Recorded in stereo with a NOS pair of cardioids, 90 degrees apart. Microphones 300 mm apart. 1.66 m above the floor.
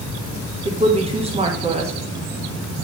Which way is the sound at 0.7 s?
20° right.